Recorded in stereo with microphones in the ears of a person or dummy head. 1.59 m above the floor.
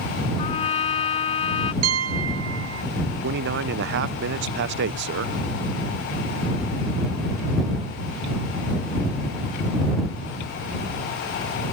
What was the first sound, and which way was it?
A trumpet, 30° left (ahead or behind).